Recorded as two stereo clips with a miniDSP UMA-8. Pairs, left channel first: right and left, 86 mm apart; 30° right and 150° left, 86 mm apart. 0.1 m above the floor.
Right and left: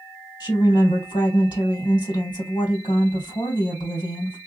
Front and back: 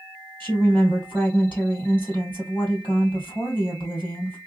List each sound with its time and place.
0.4 s a woman speaking: 95° right, 2.5 m